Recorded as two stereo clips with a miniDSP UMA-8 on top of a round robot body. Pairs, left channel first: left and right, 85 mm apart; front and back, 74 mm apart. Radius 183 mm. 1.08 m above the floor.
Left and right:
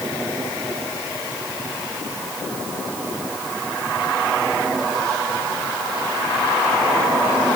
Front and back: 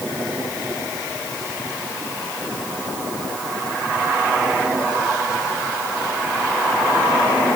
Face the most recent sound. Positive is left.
No sound to turn to.